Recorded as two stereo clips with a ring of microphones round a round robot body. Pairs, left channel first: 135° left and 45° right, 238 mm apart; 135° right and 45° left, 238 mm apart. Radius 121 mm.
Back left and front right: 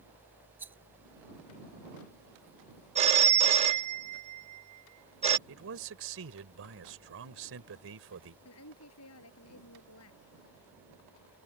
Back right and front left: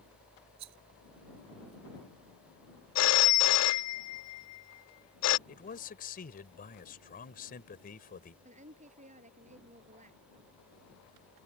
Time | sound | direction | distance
0.6 | a rattle | 35° left | ?
3.0 | a phone ringing | 110° right | ?
5.5 | a man speaking | 80° right | ?
8.4 | a woman speaking | 105° left | ?